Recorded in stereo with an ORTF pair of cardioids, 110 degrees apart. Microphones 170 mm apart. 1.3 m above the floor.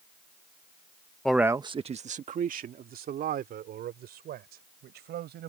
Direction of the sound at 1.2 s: 5° left.